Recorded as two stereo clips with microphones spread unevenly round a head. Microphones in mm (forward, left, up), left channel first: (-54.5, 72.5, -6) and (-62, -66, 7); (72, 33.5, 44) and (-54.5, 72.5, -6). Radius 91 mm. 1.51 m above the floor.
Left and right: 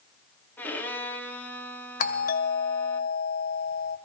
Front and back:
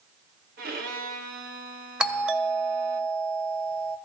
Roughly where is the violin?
Behind.